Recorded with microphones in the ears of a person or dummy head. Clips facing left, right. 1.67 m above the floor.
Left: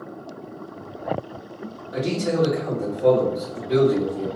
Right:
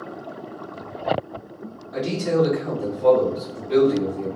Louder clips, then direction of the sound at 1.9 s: Right 1 dB; 45° left (ahead or behind).